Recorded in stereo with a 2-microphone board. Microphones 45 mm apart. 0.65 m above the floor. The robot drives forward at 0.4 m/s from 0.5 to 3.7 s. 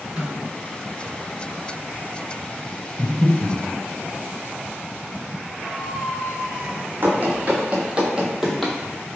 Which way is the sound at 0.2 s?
10° right (ahead or behind).